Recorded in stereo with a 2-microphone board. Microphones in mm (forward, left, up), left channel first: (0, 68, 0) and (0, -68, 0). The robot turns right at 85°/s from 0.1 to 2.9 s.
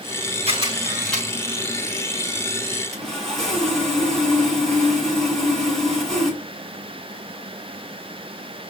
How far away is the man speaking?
No man speaking in this recording.